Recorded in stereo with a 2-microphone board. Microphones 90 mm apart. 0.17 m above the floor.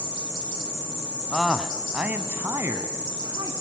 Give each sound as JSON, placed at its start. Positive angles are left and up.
{"t": 1.3, "sound": "a man speaking", "side_deg": 5, "distance_m": 1.3}